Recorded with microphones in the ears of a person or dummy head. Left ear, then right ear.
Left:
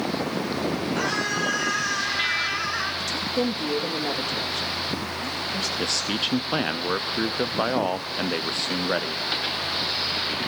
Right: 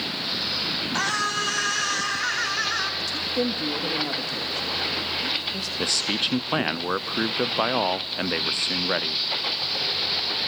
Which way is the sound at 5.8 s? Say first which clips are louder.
Right 4 dB; 20° right (ahead or behind).